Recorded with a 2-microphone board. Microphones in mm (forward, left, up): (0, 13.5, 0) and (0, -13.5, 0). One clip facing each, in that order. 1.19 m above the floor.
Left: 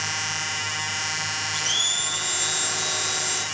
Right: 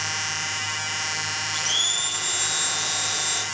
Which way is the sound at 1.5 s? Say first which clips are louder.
Even; 5° right (ahead or behind).